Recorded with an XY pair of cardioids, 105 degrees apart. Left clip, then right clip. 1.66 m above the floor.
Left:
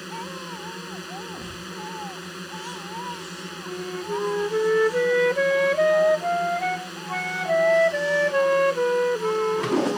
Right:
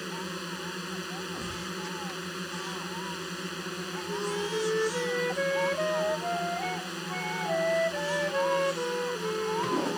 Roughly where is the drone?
Ahead.